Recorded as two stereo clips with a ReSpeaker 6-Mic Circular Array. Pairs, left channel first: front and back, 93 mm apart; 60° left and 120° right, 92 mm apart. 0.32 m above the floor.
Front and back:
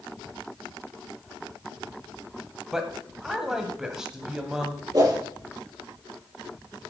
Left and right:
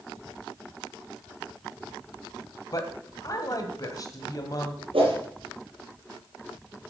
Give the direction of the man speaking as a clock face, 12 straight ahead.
9 o'clock.